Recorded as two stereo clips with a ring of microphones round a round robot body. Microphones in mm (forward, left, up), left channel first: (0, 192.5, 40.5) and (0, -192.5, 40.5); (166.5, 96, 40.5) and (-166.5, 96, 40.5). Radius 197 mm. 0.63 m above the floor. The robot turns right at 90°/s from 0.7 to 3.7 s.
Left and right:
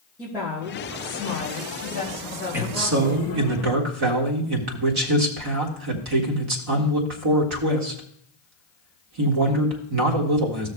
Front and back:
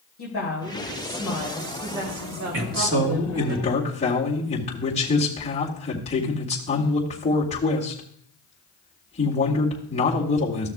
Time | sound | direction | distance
0.2 | a woman speaking | 10° right | 2.5 m
2.5 | a man speaking | 175° right | 1.9 m